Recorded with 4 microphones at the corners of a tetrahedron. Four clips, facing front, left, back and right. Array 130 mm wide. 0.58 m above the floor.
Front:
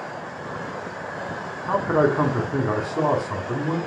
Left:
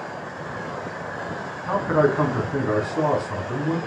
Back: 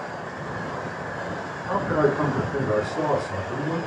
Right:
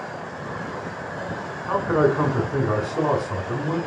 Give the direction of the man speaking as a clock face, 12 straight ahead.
12 o'clock.